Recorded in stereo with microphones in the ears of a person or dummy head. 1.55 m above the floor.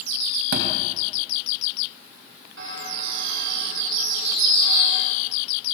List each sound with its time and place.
0.5 s a thud: 70° right (ahead or behind), 3.5 m
2.6 s a bird: 75° right (ahead or behind), 4 m